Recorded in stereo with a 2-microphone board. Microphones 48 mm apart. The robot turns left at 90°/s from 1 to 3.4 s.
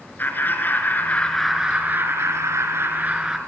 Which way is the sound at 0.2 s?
45° left.